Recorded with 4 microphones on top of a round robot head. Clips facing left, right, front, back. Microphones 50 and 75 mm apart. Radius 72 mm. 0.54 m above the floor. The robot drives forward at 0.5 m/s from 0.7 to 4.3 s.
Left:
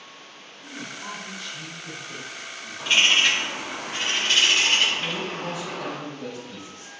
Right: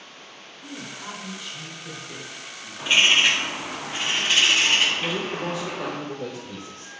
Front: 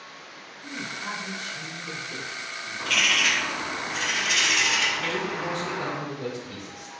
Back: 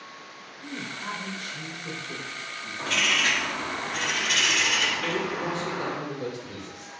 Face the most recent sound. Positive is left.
turn(degrees=-115)